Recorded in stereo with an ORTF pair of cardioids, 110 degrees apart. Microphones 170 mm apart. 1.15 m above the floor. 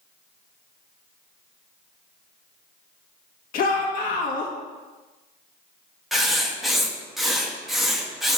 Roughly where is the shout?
Ahead left.